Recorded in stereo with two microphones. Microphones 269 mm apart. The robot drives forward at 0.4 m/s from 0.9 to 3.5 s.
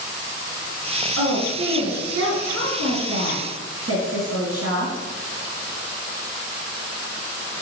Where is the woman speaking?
60° right (ahead or behind), 2.5 m.